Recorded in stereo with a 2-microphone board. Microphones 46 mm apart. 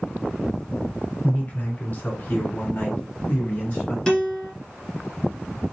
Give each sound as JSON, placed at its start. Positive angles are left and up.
{"t": 1.2, "sound": "a man speaking", "side_deg": 30, "distance_m": 1.8}
{"t": 4.1, "sound": "a guitar", "side_deg": 15, "distance_m": 1.6}